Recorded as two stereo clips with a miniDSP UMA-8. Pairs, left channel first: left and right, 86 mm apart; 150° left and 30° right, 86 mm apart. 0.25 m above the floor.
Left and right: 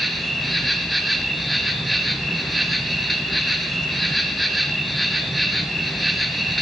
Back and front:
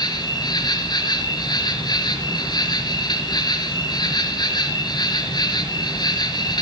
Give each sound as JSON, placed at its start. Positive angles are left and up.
{"t": 0.0, "sound": "an insect", "azimuth_deg": 180, "distance_m": 3.5}